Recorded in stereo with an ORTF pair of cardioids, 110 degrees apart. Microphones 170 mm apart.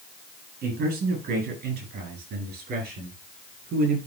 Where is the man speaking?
70° right, 8.5 m.